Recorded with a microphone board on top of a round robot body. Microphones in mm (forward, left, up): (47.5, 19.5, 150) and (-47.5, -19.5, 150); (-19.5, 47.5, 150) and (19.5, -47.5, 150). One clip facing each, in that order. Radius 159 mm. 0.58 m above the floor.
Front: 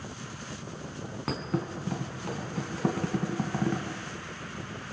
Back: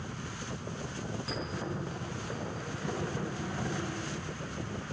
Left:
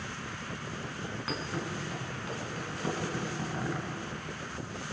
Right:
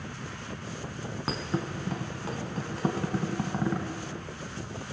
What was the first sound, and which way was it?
A thud, 10° right.